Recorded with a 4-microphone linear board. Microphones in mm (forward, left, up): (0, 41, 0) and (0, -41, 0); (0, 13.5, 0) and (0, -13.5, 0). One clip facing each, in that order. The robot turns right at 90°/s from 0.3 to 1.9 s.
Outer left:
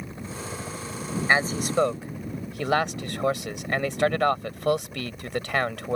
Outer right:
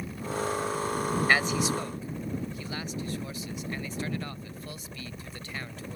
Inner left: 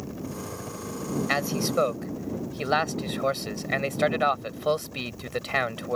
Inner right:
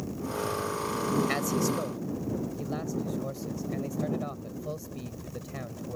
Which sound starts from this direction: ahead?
A man speaking, at 1.3 s.